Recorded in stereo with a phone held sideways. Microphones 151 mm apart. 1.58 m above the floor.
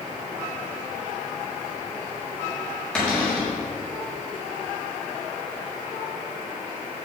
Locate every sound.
3.0 s a cupboard door: 10° left (ahead or behind), 4.5 m